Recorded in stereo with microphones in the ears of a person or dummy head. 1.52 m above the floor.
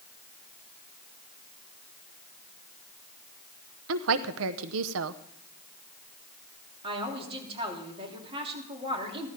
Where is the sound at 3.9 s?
80° right, 0.8 m.